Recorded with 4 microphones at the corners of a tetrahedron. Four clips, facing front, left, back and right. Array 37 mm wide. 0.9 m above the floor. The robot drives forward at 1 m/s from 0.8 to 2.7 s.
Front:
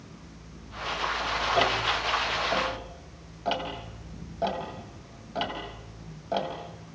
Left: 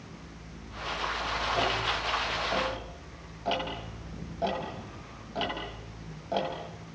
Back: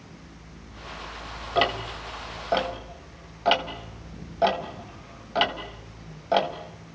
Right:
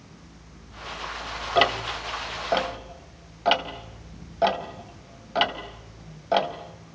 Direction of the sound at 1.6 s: 105° right.